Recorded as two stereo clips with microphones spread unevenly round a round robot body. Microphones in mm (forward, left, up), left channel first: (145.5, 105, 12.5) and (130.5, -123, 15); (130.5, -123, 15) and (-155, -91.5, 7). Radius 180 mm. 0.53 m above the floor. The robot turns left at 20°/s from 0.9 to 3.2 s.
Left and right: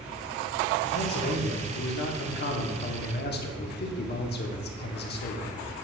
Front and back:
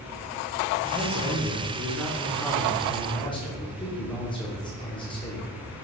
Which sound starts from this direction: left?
A man speaking, at 0.8 s.